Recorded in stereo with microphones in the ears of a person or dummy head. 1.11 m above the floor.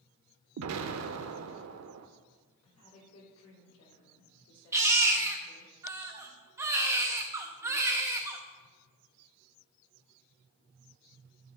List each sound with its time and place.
0.6 s an explosion: 75° right (ahead or behind), 0.6 m
2.6 s a woman speaking: 75° left (ahead or behind), 3 m
4.7 s a baby crying: 15° right (ahead or behind), 0.7 m